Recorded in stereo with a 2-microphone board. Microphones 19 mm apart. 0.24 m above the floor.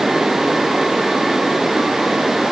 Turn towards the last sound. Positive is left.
No sound to turn to.